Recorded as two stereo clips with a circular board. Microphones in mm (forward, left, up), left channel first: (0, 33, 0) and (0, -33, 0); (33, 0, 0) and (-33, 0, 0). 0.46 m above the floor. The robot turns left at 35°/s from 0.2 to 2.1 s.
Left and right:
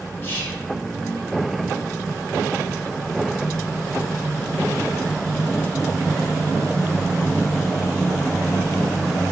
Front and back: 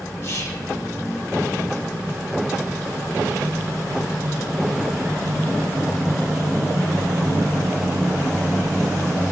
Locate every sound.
0.2 s whispering: 40° left, 2.5 m; by 0.7 s 25° left, 2.5 m